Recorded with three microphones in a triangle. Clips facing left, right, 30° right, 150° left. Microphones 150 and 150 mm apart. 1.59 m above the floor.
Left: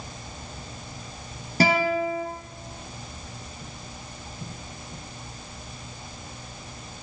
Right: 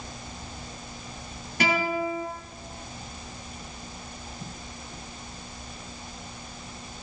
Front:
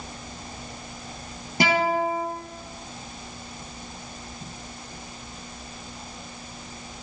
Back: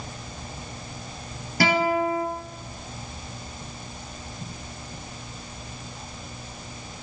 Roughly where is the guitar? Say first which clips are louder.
Left 4 dB, back 1 dB; ahead left.